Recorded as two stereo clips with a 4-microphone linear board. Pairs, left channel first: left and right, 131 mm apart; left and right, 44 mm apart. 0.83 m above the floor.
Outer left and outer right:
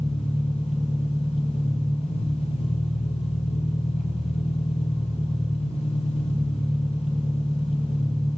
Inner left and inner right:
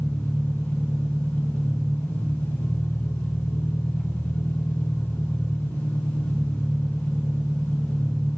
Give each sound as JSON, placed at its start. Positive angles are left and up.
{"t": 0.0, "sound": "an engine running", "side_deg": 50, "distance_m": 4.5}